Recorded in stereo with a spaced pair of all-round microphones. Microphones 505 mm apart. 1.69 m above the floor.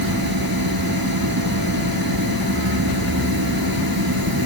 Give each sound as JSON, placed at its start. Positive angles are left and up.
{"t": 0.0, "sound": "a machine running", "side_deg": -45}